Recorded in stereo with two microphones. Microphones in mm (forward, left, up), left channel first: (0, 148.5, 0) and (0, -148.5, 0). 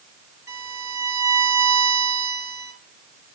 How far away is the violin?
About 4 m.